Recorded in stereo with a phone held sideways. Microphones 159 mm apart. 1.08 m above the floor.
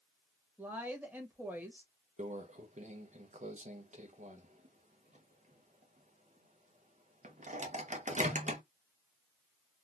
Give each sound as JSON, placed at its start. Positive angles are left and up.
{"t": 0.6, "sound": "a woman speaking", "side_deg": -10, "distance_m": 1.4}
{"t": 2.2, "sound": "a microwave", "side_deg": -45, "distance_m": 0.8}